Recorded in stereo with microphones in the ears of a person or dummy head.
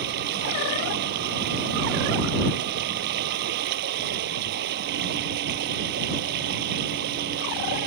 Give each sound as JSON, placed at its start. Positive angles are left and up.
{"t": 0.0, "sound": "running water", "side_deg": -55}